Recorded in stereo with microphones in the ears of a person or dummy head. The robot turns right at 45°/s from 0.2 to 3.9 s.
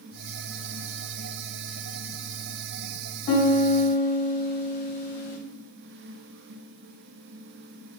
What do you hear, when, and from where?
3.3 s a piano: 60° left (ahead or behind), 0.7 m; by 5.4 s 55° left (ahead or behind), 0.7 m